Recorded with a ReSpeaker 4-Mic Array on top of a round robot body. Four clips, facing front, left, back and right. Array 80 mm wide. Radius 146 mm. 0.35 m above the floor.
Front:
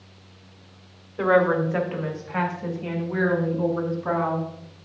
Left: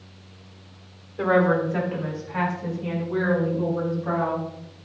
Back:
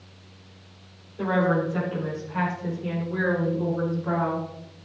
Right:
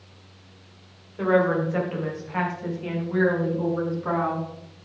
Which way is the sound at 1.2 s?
5° left.